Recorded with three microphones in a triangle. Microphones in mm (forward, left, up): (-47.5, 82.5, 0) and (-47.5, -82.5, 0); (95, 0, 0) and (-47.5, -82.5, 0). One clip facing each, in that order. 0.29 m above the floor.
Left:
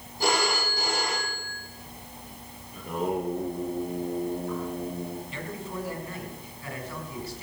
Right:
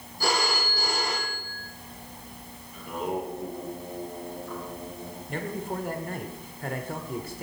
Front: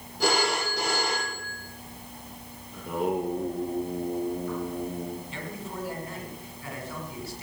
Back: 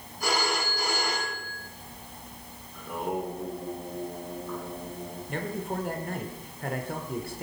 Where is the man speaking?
120° right, 2 m.